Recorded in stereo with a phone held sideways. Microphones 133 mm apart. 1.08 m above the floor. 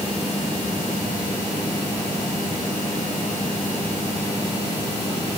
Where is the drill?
No drill in this recording.